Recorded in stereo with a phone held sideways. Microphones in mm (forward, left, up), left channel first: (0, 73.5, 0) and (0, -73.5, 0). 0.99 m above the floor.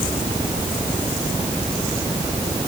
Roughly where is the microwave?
No microwave in this recording.